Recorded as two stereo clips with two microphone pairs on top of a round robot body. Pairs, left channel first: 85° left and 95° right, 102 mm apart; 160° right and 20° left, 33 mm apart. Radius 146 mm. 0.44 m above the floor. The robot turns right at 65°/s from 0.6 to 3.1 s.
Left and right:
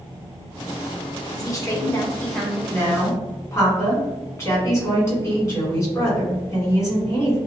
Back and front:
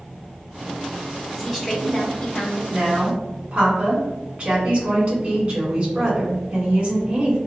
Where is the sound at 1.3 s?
95° left, 1.2 m; by 2.6 s straight behind, 1.2 m.